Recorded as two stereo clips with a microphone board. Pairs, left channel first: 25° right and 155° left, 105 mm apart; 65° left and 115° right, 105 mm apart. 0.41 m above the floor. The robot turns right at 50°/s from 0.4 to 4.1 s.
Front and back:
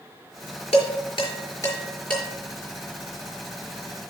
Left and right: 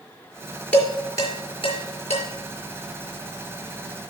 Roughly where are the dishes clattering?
Ahead.